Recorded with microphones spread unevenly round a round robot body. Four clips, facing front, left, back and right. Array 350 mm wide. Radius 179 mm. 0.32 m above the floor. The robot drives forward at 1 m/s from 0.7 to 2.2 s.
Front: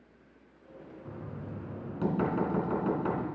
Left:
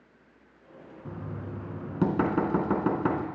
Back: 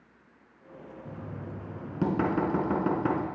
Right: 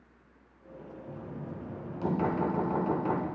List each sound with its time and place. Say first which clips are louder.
1.1 s knocking: left 3 dB, back 1 dB; 95° left, 3.5 m; by 3.2 s 115° left, 4 m